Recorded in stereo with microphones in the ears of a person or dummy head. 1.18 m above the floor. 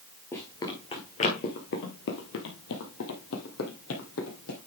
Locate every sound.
0.3 s running footsteps: 10° left (ahead or behind), 1.6 m; by 4.6 s 70° left (ahead or behind), 3.5 m